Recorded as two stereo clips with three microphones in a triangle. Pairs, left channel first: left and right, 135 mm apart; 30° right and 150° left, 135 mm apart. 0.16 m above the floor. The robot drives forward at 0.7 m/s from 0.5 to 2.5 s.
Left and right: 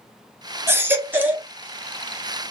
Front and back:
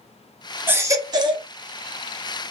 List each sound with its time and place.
0.7 s a baby crying: 145° right, 0.7 m; by 1.5 s 165° right, 1.1 m